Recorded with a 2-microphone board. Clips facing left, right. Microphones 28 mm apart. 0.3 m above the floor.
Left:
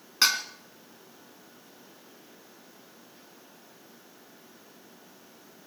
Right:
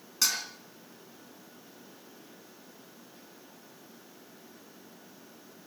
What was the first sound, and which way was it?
Dishes clattering, 40° left (ahead or behind).